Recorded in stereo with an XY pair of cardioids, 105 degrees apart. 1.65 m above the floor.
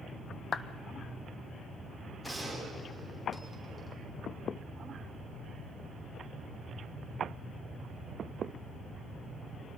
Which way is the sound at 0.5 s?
45° left.